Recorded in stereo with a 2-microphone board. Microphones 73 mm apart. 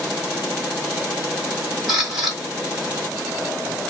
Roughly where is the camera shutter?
Centre.